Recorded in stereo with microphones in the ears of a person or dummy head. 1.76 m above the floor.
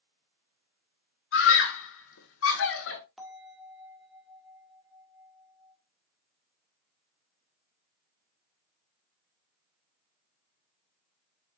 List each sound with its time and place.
1.3 s a scream: 70° left (ahead or behind), 1.8 m; by 3.0 s 65° left (ahead or behind), 1.6 m
3.2 s a bell: 5° left (ahead or behind), 1.7 m